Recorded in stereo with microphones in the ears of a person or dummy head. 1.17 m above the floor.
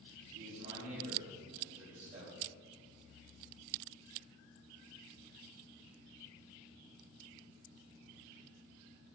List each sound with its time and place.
0.3 s a man speaking: 40° right (ahead or behind), 3 m